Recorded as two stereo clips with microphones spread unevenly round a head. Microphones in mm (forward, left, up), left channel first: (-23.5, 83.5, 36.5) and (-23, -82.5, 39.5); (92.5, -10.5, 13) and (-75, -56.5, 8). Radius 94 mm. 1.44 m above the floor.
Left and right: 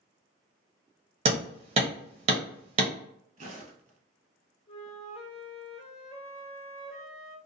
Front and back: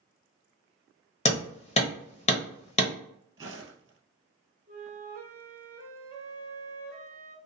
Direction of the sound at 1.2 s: 35° right.